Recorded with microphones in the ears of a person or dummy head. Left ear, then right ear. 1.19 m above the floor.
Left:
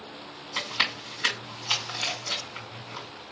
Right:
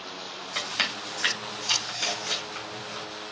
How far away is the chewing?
About 2.5 m.